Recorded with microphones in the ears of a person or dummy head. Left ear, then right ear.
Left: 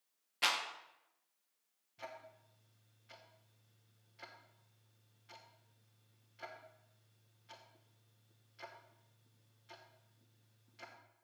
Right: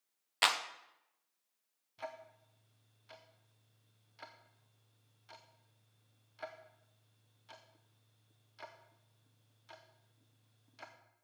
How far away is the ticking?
About 0.8 m.